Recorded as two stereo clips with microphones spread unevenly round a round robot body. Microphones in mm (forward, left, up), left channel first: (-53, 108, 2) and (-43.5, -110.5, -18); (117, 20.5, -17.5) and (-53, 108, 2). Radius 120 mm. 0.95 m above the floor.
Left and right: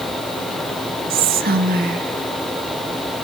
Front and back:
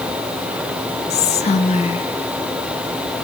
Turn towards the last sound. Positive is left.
turn(degrees=-65)